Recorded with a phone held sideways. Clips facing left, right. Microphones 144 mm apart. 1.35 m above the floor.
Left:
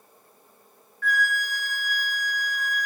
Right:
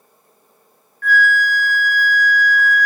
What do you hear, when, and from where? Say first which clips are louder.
1.0 s a flute: right 10 dB; 50° right (ahead or behind), 0.6 m